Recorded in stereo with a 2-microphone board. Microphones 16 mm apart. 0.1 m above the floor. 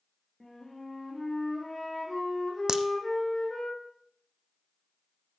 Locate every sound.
0.4 s a flute: 20° left (ahead or behind), 6 m
2.7 s a crack: 50° right (ahead or behind), 1.0 m